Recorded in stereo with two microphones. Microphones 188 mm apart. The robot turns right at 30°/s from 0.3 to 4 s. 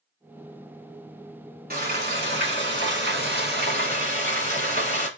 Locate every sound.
1.7 s frying: 120° right, 1.6 m; by 5.1 s 55° right, 1.6 m